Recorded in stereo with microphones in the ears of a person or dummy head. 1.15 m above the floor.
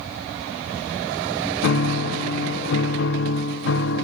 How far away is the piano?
About 1.0 m.